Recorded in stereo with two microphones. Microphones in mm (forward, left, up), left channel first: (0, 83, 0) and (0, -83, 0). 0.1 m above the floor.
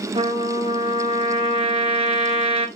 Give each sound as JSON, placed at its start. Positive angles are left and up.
{"t": 0.1, "sound": "a trumpet", "side_deg": -35, "distance_m": 2.0}